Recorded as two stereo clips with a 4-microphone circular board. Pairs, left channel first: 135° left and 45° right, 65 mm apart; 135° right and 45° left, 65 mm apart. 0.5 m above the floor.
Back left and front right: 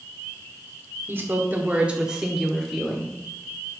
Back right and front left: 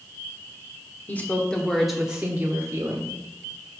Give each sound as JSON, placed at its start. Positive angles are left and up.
{"t": 1.1, "sound": "a woman speaking", "azimuth_deg": -85, "distance_m": 1.5}